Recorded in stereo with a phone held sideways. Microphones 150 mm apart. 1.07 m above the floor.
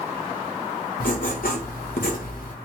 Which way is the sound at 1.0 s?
70° left (ahead or behind).